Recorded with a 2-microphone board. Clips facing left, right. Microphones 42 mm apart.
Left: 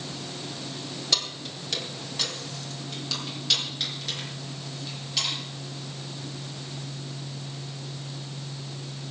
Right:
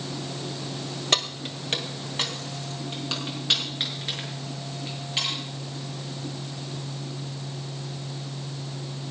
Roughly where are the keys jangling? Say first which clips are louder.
Right 4 dB; right.